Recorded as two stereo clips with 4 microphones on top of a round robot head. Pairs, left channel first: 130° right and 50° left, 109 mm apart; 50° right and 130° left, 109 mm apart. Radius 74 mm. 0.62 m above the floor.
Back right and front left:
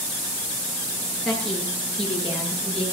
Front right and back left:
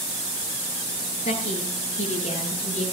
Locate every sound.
1.2 s a woman speaking: 40° right, 9.5 m